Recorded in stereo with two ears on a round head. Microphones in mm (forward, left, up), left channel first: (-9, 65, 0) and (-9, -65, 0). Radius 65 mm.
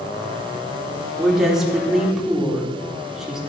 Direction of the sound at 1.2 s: 5° right (ahead or behind).